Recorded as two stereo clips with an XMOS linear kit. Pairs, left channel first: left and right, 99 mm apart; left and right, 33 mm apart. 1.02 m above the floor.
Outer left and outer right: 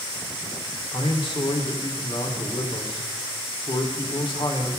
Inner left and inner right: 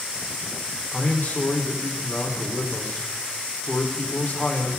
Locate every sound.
0.9 s a man speaking: 55° left (ahead or behind), 3 m